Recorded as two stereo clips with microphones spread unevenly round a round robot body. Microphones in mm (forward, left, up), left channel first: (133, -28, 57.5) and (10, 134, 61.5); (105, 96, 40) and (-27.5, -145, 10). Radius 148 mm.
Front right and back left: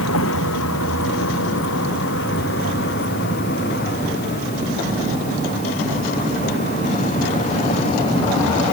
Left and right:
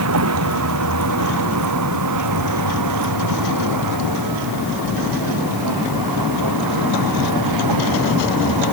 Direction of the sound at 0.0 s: 90° right.